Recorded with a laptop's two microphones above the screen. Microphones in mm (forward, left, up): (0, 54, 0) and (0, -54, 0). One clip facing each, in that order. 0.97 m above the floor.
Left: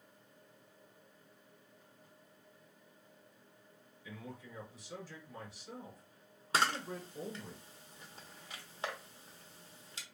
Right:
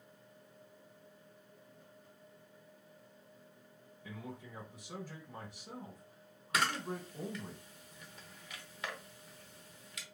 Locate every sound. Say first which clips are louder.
4.0 s a man speaking: right 2 dB; 50° right (ahead or behind), 1.8 m
6.5 s a camera shutter: left 1 dB; 30° left (ahead or behind), 0.7 m